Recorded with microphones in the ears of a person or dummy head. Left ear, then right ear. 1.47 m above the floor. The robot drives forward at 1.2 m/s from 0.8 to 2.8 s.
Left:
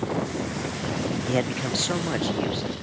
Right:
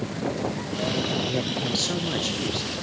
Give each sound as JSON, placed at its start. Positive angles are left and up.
{"t": 1.3, "sound": "a man speaking", "side_deg": 50, "distance_m": 0.7}